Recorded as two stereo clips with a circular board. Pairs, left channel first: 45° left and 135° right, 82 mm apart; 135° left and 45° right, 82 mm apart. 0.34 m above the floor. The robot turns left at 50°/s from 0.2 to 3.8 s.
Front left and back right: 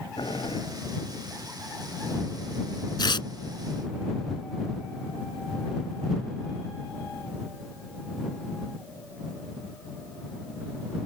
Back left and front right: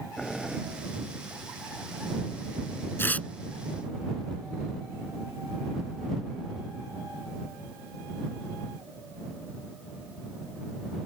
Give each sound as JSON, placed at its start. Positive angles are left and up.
{"t": 0.2, "sound": "boiling", "azimuth_deg": 50}
{"t": 3.0, "sound": "tearing paper", "azimuth_deg": 75}